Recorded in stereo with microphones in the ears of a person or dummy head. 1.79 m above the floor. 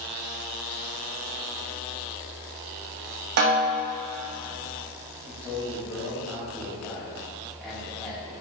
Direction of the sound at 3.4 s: 55° right (ahead or behind).